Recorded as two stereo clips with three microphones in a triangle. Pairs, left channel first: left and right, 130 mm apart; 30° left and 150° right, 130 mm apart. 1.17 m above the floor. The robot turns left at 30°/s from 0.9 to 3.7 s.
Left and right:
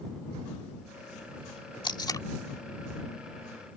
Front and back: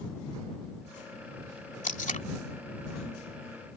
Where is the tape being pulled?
40° left; by 2.2 s 30° left.